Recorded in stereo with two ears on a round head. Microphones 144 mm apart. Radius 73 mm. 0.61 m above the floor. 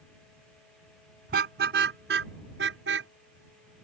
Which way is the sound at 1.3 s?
70° right (ahead or behind).